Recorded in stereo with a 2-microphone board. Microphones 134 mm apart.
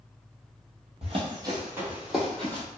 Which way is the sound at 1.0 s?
50° right (ahead or behind).